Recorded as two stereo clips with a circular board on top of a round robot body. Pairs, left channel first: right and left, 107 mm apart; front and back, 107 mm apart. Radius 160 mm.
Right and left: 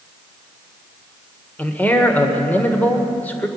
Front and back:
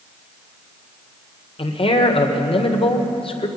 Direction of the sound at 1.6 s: 20° right.